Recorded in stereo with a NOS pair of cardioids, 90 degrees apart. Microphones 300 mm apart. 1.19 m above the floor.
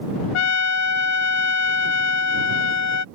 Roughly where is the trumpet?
Left.